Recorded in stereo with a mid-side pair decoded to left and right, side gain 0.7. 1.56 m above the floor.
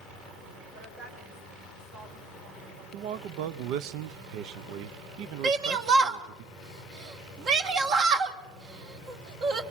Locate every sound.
0.7 s a woman speaking: 65° right, 7.5 m
2.9 s a man speaking: 65° right, 0.7 m
5.4 s a shout: 45° right, 1.9 m